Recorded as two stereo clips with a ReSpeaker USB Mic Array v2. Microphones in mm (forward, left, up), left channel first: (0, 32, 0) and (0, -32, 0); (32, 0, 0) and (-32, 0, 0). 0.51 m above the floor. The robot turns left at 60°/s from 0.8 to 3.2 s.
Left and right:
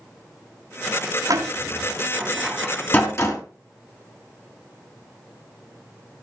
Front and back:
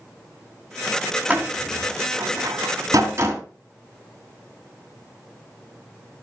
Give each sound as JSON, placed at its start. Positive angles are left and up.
{"t": 1.3, "sound": "a door slam", "azimuth_deg": -110, "distance_m": 2.5}